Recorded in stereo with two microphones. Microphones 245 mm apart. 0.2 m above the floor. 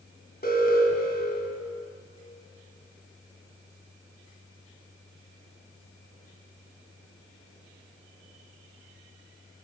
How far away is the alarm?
About 1.9 m.